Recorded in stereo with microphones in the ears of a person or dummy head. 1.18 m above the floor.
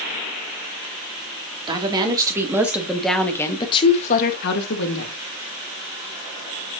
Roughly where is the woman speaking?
Right.